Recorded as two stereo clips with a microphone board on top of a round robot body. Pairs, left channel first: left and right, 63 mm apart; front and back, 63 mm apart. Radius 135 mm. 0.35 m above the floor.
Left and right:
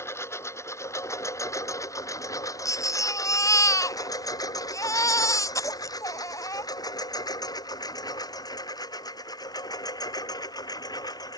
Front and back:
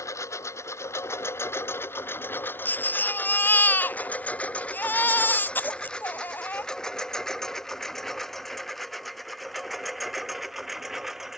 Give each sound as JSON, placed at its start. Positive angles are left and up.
{"t": 0.0, "sound": "a lawn mower", "azimuth_deg": 45}
{"t": 2.6, "sound": "a baby crying", "azimuth_deg": 60}